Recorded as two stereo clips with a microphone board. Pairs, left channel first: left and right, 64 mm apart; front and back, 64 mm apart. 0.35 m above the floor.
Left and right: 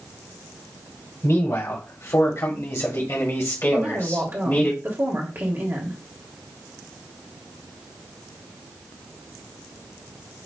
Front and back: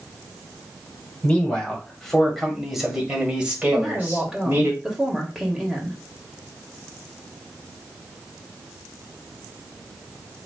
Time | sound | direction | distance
1.2 | a man speaking | 70° left | 1.9 m
3.7 | a woman speaking | 105° right | 1.6 m